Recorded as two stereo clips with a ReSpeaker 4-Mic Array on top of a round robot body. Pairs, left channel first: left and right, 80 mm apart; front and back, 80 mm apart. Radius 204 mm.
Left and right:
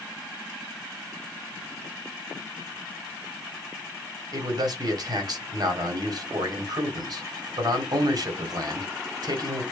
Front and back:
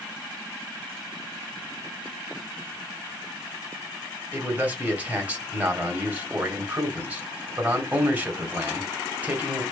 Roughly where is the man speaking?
Right.